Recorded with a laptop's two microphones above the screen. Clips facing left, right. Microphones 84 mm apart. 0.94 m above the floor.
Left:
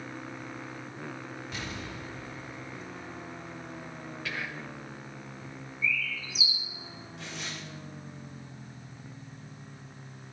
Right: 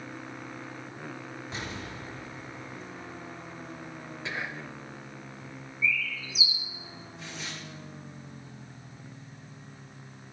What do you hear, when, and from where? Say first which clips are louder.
1.5 s an explosion: right 2 dB; 30° right (ahead or behind), 1.9 m
4.2 s whispering: right 2 dB; 25° right (ahead or behind), 0.6 m
5.8 s a bird: right 2 dB; 45° left (ahead or behind), 2 m
7.2 s tearing paper: left 1 dB; 80° left, 4.5 m